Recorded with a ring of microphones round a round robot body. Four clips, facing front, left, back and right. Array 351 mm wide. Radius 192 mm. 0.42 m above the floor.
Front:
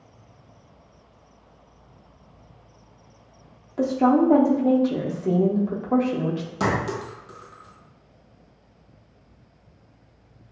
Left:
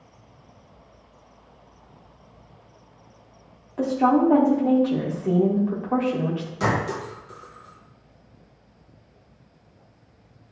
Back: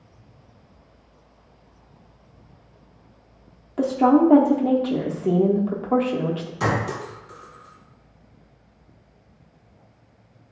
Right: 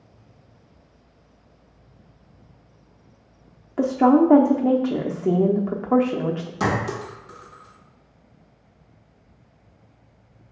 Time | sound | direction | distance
3.8 | a woman speaking | 100° right | 0.8 m
6.6 | a clink | 30° right | 2 m